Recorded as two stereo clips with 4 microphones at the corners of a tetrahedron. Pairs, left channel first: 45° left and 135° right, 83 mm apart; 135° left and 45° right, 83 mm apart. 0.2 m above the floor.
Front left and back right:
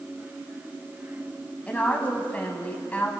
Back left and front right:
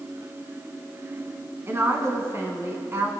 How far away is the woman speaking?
About 1.2 m.